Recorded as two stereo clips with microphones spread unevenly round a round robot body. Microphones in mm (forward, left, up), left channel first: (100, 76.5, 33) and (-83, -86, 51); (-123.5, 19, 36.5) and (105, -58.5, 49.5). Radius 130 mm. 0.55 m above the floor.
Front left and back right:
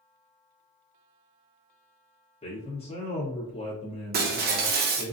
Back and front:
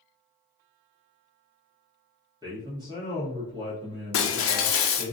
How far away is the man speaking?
About 1.3 m.